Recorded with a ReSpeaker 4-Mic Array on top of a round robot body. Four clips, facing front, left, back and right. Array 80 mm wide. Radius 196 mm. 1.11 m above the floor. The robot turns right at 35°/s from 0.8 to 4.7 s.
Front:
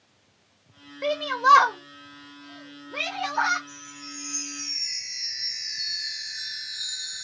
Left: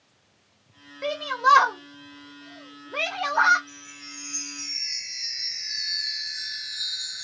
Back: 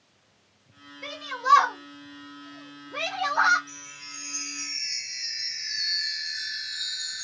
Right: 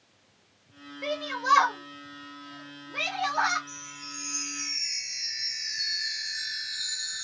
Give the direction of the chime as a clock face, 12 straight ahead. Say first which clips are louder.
Right 2 dB, front 3 dB; 7 o'clock.